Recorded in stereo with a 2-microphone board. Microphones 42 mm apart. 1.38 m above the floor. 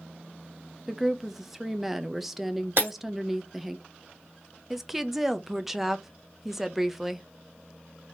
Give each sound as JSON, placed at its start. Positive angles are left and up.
{"t": 0.9, "sound": "a woman speaking", "side_deg": -5, "distance_m": 0.6}
{"t": 2.8, "sound": "breaking glass", "side_deg": -55, "distance_m": 2.5}
{"t": 4.7, "sound": "a woman speaking", "side_deg": -10, "distance_m": 0.6}